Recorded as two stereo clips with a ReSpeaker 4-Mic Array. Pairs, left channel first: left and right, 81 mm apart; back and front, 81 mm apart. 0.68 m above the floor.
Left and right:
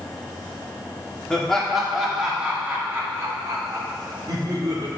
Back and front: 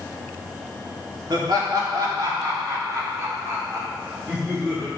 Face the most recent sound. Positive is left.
turn(degrees=-75)